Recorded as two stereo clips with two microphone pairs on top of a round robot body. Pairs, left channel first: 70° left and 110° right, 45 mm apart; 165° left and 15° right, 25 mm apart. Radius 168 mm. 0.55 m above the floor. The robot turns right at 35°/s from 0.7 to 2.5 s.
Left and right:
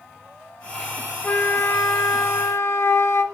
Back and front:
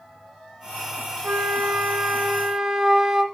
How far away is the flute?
About 0.8 m.